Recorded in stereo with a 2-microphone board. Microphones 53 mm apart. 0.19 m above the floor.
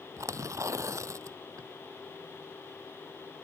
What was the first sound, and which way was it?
Tearing paper, 70° right (ahead or behind).